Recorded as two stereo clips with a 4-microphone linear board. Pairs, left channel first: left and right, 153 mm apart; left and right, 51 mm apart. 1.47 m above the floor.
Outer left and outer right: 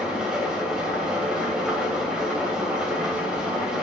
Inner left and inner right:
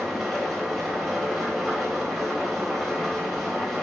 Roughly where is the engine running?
Centre.